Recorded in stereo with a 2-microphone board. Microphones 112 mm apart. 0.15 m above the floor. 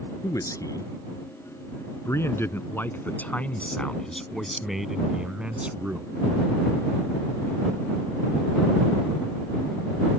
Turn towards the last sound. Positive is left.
turn(degrees=-15)  # may be behind; listen again after turning